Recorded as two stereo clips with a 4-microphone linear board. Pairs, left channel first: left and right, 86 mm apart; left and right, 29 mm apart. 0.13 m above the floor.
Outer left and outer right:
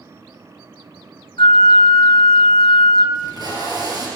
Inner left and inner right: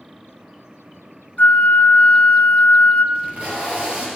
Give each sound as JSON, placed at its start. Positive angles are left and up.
{"t": 1.4, "sound": "a flute", "side_deg": 70, "distance_m": 1.1}
{"t": 3.1, "sound": "tape being pulled", "side_deg": -45, "distance_m": 3.5}